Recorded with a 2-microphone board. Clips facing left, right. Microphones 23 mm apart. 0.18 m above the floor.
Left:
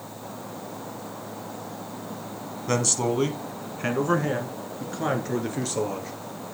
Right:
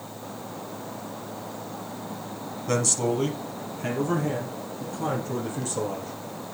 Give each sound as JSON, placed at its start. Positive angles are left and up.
{"t": 2.7, "sound": "a man speaking", "side_deg": 20, "distance_m": 1.3}